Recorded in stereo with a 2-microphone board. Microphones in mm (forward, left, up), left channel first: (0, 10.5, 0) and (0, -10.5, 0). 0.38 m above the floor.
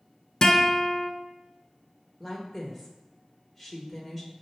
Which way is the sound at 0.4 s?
25° left (ahead or behind).